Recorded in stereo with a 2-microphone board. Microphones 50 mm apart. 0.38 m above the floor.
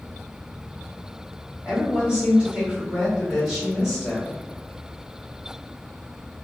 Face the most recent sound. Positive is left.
turn(degrees=0)  # may be behind; listen again after turning